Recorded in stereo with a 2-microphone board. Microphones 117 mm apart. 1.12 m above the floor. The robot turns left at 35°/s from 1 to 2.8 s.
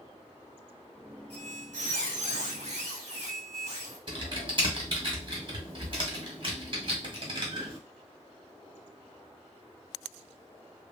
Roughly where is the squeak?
Right.